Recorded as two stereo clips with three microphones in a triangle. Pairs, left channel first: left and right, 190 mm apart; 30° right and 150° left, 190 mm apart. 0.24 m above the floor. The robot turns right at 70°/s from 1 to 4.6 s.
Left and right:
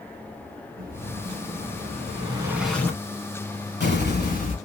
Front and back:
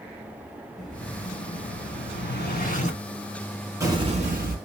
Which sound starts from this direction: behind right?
An explosion, at 0.8 s.